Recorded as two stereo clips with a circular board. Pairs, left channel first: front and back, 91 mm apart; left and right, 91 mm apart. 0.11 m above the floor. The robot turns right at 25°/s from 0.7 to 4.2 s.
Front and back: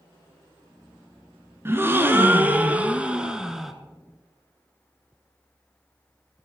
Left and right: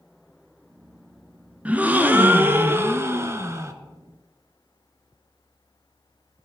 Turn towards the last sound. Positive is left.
turn(degrees=-85)